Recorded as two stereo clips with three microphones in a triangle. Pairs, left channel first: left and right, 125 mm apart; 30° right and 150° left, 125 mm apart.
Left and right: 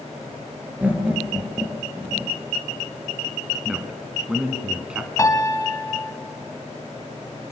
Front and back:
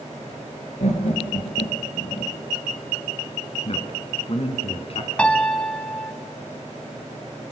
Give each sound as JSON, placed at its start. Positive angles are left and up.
{"t": 0.8, "sound": "laughter", "azimuth_deg": -15, "distance_m": 3.0}
{"t": 3.6, "sound": "a man speaking", "azimuth_deg": -10, "distance_m": 3.0}
{"t": 5.2, "sound": "a piano", "azimuth_deg": 45, "distance_m": 1.3}